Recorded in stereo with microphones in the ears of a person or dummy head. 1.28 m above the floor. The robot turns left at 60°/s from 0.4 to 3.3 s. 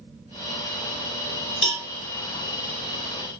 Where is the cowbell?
15° left (ahead or behind), 2.0 m; by 1.9 s centre (ahead or behind), 2.0 m.